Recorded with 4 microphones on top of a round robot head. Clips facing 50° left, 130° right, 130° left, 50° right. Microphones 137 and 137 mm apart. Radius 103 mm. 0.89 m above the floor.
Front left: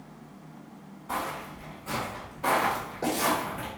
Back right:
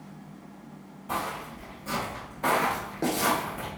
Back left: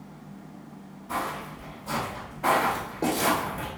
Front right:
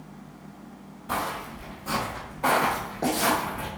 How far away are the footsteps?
About 1.6 m.